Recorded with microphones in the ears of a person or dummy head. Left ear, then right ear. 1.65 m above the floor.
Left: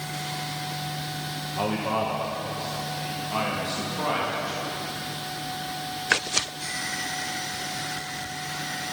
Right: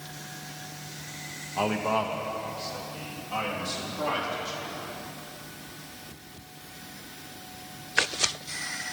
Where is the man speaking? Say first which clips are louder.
Even; 25° right (ahead or behind), 0.5 m; by 4.7 s 10° left (ahead or behind), 2 m.